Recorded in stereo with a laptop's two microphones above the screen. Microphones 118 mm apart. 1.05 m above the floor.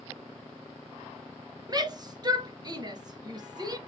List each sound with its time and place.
1.7 s a shout: 30° right (ahead or behind), 0.8 m